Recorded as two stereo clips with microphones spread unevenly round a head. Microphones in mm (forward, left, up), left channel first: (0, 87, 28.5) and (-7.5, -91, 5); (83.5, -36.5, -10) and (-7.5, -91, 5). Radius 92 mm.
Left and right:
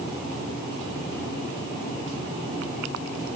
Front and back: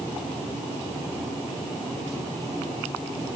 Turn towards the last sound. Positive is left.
No sound to turn to.